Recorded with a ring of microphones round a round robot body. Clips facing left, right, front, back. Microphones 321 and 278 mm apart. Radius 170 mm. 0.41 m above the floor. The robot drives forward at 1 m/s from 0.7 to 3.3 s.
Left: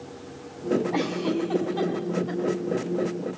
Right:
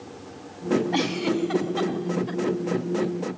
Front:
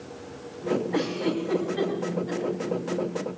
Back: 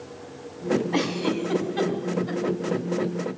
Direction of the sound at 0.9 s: 130° right.